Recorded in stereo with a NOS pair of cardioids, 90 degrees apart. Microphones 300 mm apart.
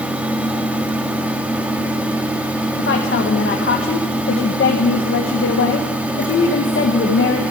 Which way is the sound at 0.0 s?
5° right.